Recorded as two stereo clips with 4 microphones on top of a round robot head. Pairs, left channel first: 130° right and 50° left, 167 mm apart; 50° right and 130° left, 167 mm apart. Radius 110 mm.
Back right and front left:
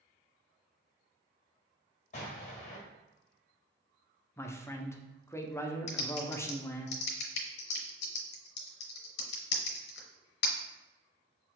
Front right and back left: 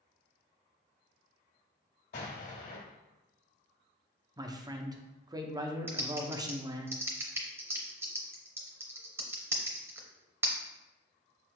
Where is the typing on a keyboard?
155° right, 0.6 m.